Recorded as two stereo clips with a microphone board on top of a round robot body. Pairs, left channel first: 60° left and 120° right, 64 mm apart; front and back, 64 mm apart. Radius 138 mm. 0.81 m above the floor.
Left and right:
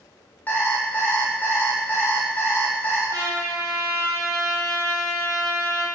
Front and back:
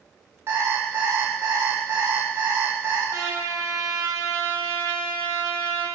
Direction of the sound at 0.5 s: 125° left.